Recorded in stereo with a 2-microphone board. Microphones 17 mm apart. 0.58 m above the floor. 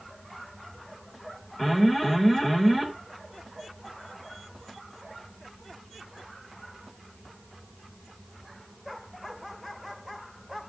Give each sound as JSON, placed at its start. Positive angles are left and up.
{"t": 1.6, "sound": "an alarm", "side_deg": 10, "distance_m": 3.0}